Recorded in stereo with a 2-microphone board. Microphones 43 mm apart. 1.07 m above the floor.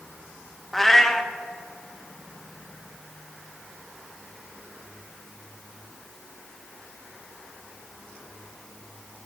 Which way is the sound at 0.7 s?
10° left (ahead or behind).